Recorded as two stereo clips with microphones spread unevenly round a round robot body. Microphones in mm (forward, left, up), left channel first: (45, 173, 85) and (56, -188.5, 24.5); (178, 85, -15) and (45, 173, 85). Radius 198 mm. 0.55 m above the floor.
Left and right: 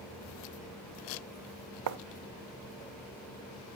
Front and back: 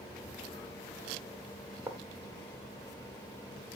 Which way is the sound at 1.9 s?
125° right.